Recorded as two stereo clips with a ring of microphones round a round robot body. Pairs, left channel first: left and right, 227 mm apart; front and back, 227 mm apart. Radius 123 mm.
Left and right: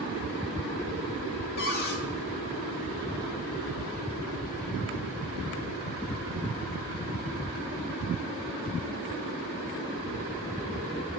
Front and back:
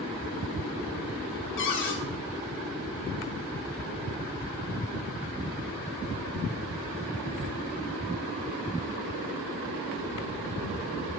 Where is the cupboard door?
35° left, 1.0 m.